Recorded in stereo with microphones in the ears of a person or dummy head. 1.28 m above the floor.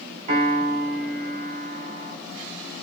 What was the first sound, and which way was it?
A piano, 30° right (ahead or behind).